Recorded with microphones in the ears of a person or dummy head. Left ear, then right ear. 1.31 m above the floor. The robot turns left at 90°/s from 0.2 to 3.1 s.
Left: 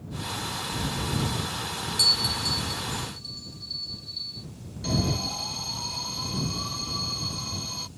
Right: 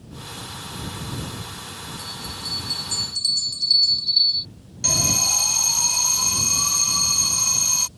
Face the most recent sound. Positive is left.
turn(degrees=-60)  # may be behind; listen again after turning